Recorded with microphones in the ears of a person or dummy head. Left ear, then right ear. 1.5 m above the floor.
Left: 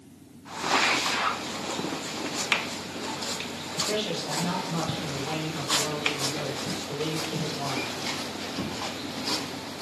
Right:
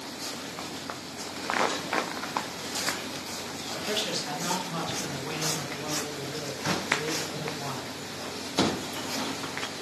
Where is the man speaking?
40° right (ahead or behind), 1.2 m; by 7.9 s 65° left (ahead or behind), 1.6 m.